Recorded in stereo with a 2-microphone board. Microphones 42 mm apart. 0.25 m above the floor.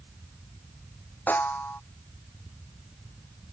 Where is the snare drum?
45° left (ahead or behind).